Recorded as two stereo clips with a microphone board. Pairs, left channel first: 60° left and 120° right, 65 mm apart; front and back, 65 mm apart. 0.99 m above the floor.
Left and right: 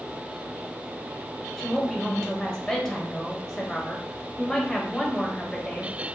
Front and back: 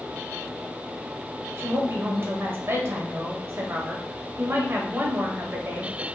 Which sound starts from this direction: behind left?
A woman speaking, at 1.6 s.